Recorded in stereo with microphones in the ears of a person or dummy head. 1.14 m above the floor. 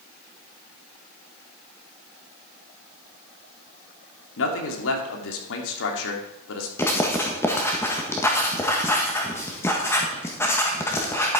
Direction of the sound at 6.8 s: 15° left (ahead or behind).